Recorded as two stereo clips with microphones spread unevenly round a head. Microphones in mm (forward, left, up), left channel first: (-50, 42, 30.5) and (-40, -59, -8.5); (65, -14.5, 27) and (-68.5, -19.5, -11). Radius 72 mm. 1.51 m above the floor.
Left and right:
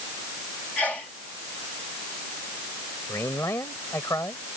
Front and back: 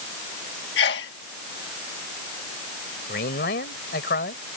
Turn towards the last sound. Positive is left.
turn(degrees=25)